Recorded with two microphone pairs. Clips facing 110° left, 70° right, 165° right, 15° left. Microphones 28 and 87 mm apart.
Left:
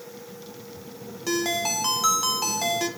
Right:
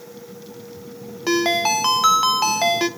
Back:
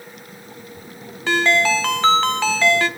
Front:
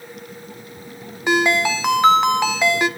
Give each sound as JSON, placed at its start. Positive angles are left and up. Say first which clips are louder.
{"t": 1.3, "sound": "a ringtone", "louder": "right 7 dB, even", "azimuth_deg": -50, "distance_m": 0.5}